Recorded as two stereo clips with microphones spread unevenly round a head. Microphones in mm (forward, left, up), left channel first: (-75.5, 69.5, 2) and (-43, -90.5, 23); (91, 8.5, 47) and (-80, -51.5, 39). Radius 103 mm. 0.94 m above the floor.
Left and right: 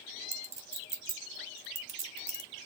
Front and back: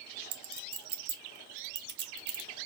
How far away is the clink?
About 1.1 m.